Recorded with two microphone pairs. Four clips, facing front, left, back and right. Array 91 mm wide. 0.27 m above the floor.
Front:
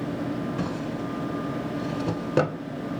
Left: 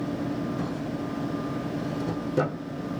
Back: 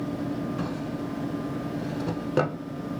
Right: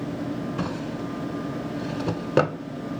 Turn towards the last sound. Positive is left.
turn(degrees=-95)